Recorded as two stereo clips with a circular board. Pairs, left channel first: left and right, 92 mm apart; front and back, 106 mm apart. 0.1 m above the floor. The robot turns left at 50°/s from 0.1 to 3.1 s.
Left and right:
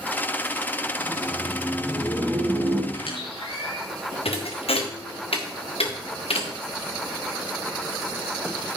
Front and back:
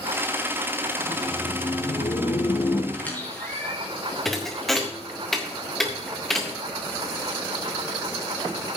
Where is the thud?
85° left, 2 m.